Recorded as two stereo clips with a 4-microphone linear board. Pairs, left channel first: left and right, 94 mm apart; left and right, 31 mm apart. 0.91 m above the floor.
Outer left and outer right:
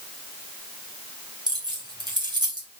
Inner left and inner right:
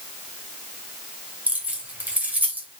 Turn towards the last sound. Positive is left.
turn(degrees=-50)  # may be behind; listen again after turning